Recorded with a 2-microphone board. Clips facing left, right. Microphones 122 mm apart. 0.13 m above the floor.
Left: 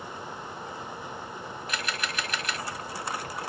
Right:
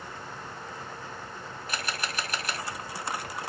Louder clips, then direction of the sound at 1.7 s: Even; 30° right (ahead or behind).